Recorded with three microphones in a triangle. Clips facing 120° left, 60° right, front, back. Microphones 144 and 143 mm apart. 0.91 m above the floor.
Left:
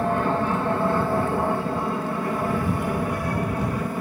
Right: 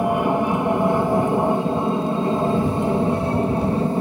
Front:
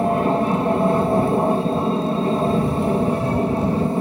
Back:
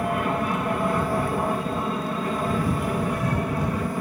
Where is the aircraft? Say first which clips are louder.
Right 3 dB, front 7 dB; straight ahead; by 4.0 s 25° right.